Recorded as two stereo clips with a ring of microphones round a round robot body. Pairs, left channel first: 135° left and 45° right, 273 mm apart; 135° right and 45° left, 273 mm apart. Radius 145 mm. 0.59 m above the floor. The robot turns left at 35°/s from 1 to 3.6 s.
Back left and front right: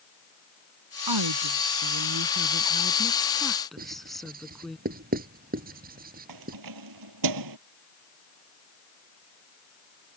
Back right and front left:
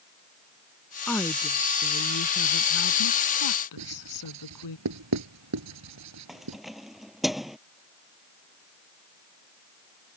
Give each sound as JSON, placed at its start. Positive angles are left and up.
{"t": 1.1, "sound": "a woman speaking", "azimuth_deg": -45}
{"t": 3.8, "sound": "writing", "azimuth_deg": 15}
{"t": 6.3, "sound": "keys jangling", "azimuth_deg": -45}